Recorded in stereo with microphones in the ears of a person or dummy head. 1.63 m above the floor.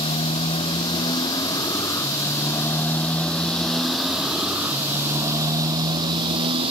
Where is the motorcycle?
30° left (ahead or behind); by 6.7 s 35° right (ahead or behind).